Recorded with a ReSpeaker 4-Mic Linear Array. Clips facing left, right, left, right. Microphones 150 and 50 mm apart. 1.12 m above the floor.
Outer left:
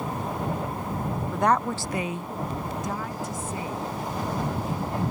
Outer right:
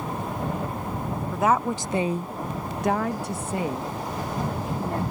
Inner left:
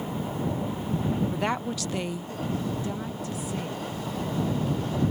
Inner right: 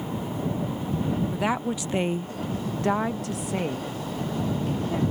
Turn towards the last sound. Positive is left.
turn(degrees=-60)  # may be behind; listen again after turning